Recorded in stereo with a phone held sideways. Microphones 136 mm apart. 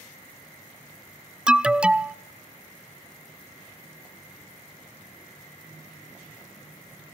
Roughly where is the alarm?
Centre.